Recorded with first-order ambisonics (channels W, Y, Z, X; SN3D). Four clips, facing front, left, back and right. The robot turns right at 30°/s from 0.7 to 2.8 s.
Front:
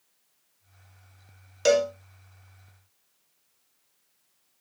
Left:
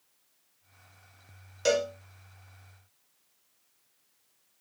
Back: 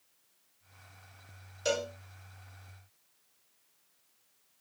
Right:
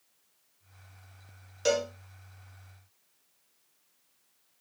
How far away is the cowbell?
About 0.6 m.